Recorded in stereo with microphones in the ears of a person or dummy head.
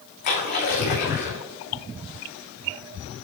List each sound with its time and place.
0.2 s a splash: 50° left (ahead or behind), 3 m